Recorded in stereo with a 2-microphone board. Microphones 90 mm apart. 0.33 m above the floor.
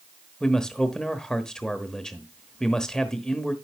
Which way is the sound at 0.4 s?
5° left (ahead or behind).